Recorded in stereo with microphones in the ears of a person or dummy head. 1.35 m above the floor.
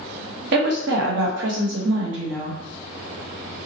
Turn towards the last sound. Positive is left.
turn(degrees=-70)  # may be behind; listen again after turning